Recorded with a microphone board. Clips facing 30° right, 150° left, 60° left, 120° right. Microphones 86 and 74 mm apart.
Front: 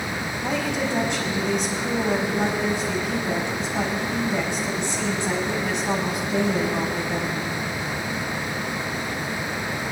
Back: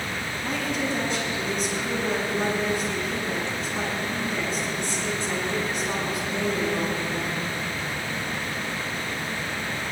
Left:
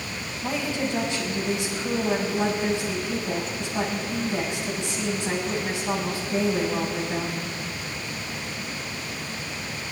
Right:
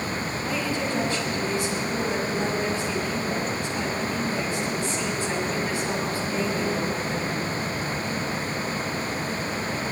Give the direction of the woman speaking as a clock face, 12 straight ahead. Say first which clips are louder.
Front 3 dB, left 2 dB; 12 o'clock.